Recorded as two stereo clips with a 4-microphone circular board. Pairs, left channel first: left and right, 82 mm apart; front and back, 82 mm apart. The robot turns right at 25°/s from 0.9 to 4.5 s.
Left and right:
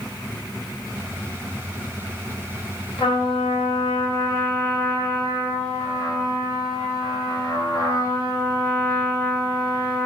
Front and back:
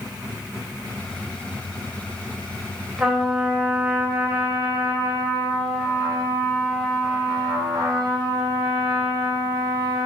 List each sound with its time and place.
3.0 s a trumpet: 100° left, 2.5 m; by 10.1 s 135° left, 2.5 m